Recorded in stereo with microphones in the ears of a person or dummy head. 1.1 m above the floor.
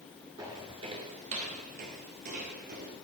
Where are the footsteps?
10° right (ahead or behind), 1.1 m; by 3.0 s 45° right (ahead or behind), 2 m.